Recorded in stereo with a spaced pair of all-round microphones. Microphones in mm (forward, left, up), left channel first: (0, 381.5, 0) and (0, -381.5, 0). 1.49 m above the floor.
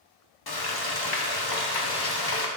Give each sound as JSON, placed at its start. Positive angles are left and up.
{"t": 0.5, "sound": "frying", "side_deg": 30, "distance_m": 0.7}